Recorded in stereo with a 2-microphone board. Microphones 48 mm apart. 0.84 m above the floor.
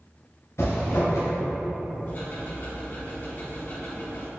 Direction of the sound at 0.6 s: 70° left (ahead or behind).